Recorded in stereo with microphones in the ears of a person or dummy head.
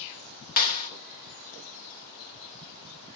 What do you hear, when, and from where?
0.6 s a clap: 40° left (ahead or behind), 1.5 m